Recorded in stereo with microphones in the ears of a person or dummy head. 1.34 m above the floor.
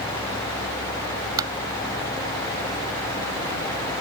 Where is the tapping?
20° right (ahead or behind).